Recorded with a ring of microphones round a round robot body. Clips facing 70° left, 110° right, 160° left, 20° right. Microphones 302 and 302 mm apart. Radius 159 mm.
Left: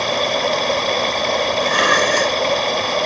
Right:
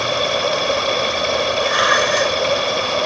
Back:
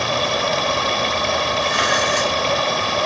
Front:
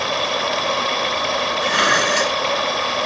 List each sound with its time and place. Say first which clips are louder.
0.0 s running water: even, back 2 dB; 165° left
1.6 s dishes clattering: left 1 dB, front 1 dB; 5° left